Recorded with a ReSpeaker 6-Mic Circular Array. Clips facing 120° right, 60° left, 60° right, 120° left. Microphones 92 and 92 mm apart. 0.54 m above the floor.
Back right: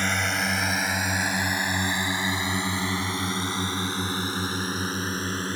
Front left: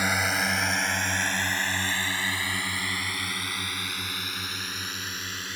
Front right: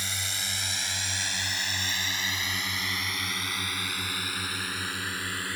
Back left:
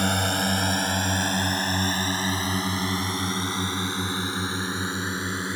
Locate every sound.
0.0 s a drone: 145° left; by 5.6 s 170° right